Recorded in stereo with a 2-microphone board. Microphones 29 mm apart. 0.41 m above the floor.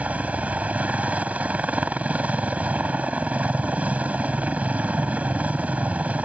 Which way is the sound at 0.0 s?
60° right (ahead or behind).